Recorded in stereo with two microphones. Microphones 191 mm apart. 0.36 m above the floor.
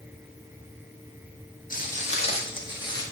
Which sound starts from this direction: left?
Footsteps, at 1.7 s.